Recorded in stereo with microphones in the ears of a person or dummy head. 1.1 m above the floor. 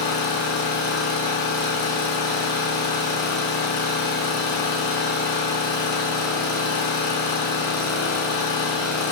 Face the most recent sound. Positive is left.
turn(degrees=50)  # may be behind; listen again after turning